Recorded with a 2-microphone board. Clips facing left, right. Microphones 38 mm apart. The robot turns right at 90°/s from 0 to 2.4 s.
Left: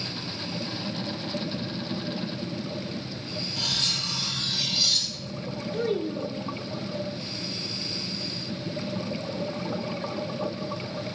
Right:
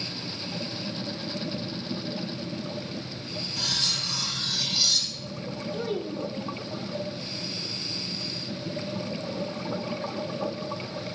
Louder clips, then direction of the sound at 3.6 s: Even; 40° left (ahead or behind).